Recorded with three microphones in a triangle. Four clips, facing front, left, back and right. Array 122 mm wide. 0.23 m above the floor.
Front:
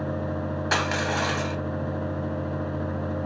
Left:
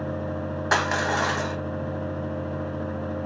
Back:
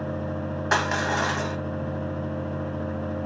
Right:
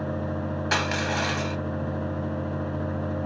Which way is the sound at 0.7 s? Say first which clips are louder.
Left 4 dB, back 2 dB; 115° left.